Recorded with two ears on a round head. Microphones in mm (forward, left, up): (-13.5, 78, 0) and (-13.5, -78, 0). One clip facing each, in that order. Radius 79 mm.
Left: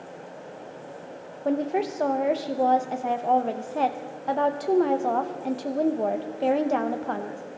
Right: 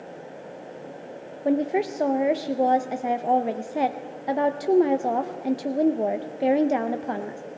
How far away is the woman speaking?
About 0.5 m.